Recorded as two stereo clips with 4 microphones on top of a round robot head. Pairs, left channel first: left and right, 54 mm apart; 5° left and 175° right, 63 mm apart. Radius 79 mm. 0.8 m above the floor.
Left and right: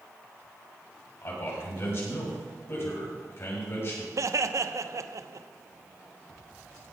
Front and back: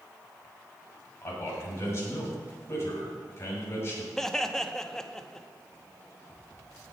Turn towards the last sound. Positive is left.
turn(degrees=-80)